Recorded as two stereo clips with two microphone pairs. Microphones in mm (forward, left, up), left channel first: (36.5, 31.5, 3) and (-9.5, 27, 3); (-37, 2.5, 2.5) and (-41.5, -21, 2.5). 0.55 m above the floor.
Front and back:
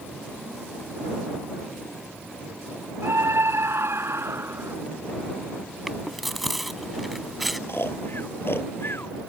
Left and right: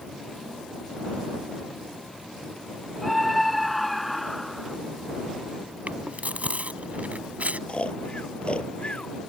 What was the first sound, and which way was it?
A scream, 170° left.